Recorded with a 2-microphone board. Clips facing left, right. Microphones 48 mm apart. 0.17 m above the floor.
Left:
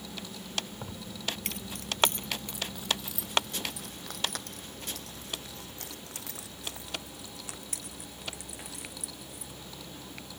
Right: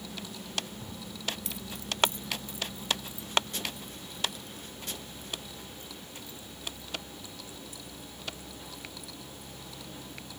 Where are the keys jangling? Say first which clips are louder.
Left 1 dB; 50° left (ahead or behind); by 9.5 s 85° left.